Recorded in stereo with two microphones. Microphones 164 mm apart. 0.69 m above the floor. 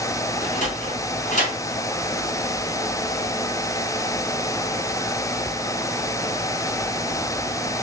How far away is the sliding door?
About 1.2 m.